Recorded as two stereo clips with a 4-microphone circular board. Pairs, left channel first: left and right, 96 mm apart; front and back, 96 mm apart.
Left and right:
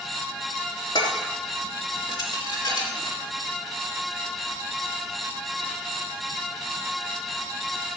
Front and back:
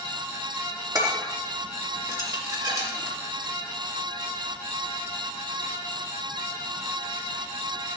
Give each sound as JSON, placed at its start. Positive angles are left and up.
{"t": 0.9, "sound": "dishes clattering", "azimuth_deg": 130, "distance_m": 3.0}